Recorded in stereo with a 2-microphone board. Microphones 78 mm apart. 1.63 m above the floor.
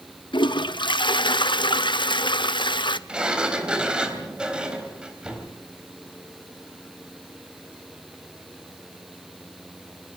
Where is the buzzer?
No buzzer in this recording.